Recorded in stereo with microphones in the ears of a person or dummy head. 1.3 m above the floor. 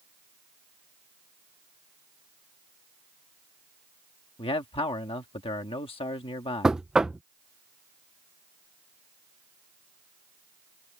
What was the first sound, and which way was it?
A man speaking, 25° left (ahead or behind).